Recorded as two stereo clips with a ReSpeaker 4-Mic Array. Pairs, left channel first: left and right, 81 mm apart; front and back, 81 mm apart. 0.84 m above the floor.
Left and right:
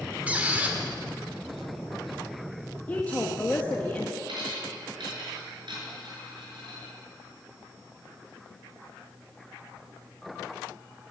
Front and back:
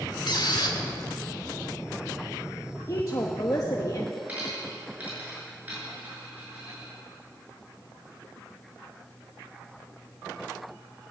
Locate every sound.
0.3 s a squeak: 20° right, 1.8 m
2.9 s a woman speaking: 25° left, 1.1 m
4.3 s a dropped coin: 110° right, 6 m